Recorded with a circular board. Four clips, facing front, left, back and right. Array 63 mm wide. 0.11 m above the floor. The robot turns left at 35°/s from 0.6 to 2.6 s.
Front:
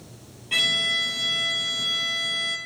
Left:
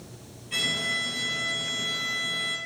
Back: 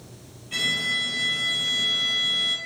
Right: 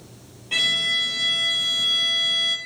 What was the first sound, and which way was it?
A violin, 50° right.